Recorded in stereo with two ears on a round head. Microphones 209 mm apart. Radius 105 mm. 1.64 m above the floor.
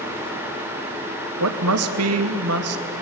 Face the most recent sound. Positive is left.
turn(degrees=-70)  # may be behind; listen again after turning